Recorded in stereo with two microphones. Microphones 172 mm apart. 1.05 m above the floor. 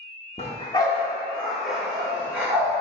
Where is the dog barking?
40° left (ahead or behind), 1.0 m; by 2.7 s 15° right (ahead or behind), 2.5 m.